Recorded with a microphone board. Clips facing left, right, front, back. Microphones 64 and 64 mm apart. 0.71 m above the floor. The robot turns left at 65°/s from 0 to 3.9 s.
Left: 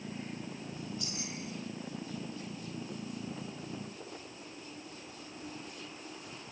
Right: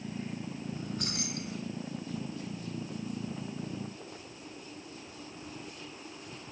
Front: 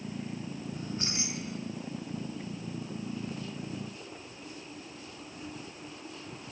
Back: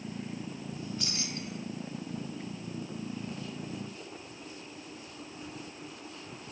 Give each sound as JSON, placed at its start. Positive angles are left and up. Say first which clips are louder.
{"t": 0.8, "sound": "keys jangling", "louder": "right 4 dB, front 1 dB", "azimuth_deg": -45, "distance_m": 4.5}